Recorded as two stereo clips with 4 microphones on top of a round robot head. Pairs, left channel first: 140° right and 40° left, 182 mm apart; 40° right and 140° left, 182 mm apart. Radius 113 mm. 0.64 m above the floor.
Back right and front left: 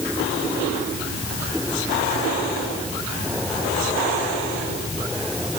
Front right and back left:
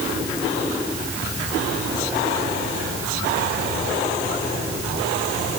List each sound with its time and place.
Only background noise.